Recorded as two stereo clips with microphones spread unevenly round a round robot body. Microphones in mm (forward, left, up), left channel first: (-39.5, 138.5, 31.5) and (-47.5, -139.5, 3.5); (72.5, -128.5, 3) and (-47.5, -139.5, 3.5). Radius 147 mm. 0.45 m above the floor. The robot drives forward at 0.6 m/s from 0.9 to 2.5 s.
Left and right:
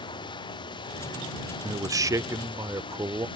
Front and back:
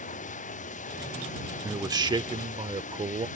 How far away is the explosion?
No explosion in this recording.